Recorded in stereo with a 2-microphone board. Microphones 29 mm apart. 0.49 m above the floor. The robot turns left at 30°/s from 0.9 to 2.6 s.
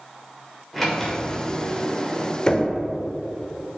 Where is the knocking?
25° left (ahead or behind), 0.8 m; by 2.7 s 30° left (ahead or behind), 0.8 m.